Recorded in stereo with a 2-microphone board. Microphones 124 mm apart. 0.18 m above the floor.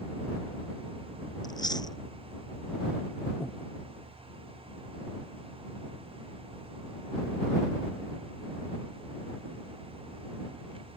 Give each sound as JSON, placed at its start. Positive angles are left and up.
{"t": 1.4, "sound": "chewing", "side_deg": 35}
{"t": 3.4, "sound": "breathing", "side_deg": -5}